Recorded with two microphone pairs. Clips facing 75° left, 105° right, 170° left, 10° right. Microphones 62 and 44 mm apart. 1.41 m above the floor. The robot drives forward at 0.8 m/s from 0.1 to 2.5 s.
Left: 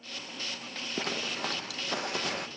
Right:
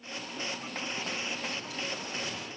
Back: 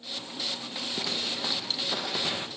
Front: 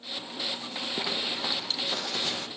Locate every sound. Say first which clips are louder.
1.0 s a zipper: left 6 dB, front 1 dB; 65° left, 2 m; by 2.5 s 100° left, 2.0 m